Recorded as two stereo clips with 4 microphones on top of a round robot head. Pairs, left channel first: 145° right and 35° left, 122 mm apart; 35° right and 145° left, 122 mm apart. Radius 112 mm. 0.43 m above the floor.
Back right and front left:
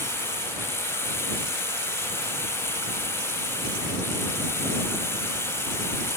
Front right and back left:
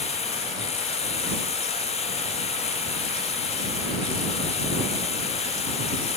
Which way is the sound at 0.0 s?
75° right.